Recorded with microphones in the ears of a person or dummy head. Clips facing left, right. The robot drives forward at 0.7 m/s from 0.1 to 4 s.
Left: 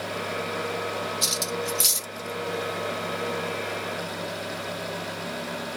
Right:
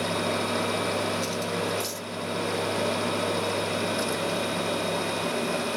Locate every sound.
1.2 s cutlery clinking: 65° left (ahead or behind); by 2.1 s 70° left (ahead or behind)